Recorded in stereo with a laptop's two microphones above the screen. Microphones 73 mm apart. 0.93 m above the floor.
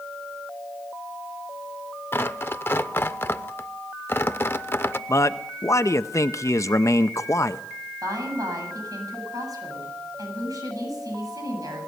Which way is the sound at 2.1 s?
35° left (ahead or behind).